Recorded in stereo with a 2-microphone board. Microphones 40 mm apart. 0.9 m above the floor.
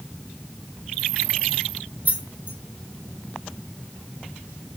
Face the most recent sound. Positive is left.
turn(degrees=-45)  # may be behind; listen again after turning